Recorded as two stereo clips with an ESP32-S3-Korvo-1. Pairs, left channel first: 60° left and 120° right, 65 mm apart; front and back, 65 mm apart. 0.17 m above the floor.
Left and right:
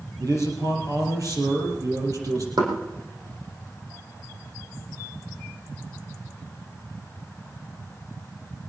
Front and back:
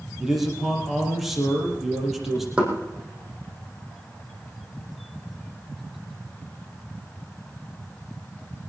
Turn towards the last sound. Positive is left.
turn(degrees=-110)